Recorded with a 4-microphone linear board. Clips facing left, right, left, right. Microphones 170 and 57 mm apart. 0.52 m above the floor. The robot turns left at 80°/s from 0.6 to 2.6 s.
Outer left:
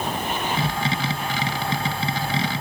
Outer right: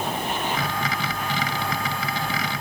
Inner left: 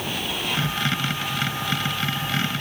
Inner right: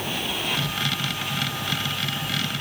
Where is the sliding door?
I don't hear a sliding door.